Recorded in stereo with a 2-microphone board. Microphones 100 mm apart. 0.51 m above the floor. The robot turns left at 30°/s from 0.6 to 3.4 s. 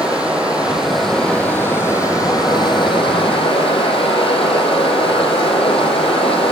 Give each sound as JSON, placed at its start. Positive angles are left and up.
{"t": 0.0, "sound": "running water", "azimuth_deg": -165, "distance_m": 6.0}